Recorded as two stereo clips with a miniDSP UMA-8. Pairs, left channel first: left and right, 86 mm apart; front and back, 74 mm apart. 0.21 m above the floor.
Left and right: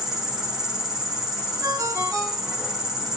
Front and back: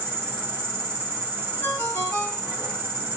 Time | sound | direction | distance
0.0 | an insect | 170° right | 2.5 m
1.6 | a ringtone | 50° right | 1.7 m